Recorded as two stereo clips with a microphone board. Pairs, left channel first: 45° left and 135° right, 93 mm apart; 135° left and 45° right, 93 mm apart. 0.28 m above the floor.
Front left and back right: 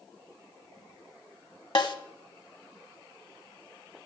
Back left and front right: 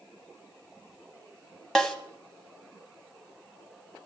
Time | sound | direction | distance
1.8 | a snare drum | 50° left | 1.2 m